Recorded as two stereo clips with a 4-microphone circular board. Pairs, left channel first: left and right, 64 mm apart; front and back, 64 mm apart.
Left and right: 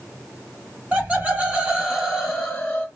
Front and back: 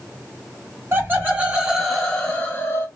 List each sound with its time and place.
0.9 s laughter: 145° right, 1.4 m; by 2.9 s 15° left, 1.2 m